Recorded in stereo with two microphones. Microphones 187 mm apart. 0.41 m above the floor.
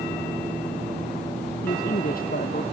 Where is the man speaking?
50° left (ahead or behind).